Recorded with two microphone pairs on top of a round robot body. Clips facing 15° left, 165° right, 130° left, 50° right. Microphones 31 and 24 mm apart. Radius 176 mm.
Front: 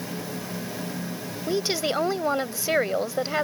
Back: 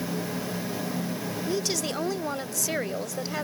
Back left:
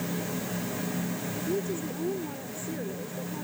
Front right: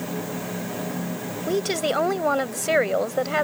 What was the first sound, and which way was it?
A woman speaking, 50° right.